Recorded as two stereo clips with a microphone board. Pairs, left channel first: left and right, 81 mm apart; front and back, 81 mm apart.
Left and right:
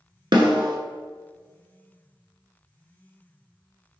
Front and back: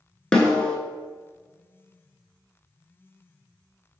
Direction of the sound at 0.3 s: 80° right.